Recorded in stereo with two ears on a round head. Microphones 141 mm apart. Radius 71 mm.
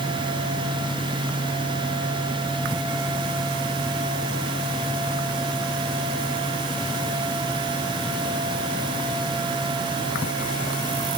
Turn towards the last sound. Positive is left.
No sound to turn to.